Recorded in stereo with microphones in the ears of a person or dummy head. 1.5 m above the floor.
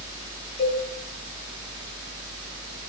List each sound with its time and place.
0.6 s a cowbell: 70° left (ahead or behind), 3 m